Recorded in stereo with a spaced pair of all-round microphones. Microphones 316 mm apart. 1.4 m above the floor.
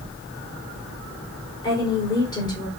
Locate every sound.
1.6 s a woman speaking: 15° left (ahead or behind), 4.5 m